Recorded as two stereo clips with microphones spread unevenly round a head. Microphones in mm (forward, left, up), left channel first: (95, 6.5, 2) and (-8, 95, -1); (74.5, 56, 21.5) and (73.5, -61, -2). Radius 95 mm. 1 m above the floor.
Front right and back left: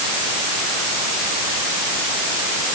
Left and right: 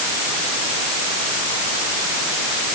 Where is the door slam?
No door slam in this recording.